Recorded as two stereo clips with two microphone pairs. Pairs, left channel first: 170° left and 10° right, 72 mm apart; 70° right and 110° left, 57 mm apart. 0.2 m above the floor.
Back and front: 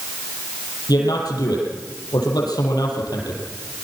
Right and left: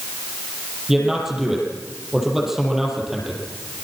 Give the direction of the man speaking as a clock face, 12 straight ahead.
6 o'clock.